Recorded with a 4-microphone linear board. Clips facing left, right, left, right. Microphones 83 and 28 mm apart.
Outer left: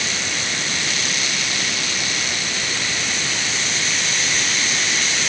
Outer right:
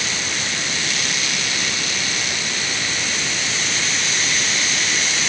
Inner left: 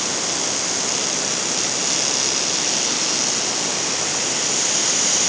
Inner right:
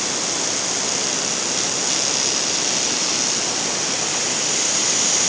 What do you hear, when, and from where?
Only background noise.